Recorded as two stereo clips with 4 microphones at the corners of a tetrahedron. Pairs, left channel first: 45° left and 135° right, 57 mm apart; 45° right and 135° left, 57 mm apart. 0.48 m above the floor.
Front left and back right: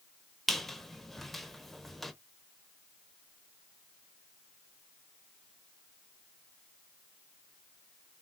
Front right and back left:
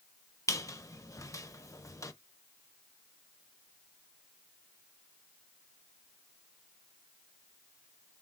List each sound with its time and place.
0.5 s a squeak: 40° right, 0.7 m